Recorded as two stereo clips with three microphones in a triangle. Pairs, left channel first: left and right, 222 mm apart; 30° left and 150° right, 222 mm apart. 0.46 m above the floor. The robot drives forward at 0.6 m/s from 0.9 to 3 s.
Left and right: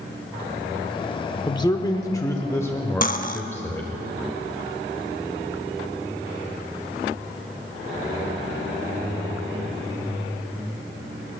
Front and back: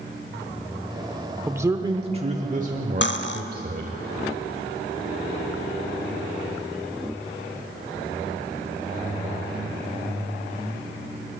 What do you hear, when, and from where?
1.5 s a man speaking: 135° left, 0.8 m; by 3.9 s 170° left, 1.4 m
3.0 s cutlery clinking: 50° left, 0.6 m